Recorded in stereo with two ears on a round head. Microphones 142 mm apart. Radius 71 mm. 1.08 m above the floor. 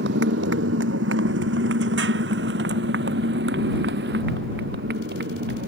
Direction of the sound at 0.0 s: 75° right (ahead or behind).